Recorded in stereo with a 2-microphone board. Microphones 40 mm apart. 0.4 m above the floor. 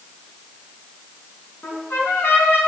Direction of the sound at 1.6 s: 75° left (ahead or behind).